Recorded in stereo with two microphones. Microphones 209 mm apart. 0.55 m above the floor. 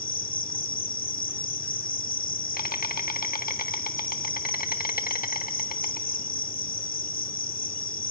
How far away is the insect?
About 0.8 m.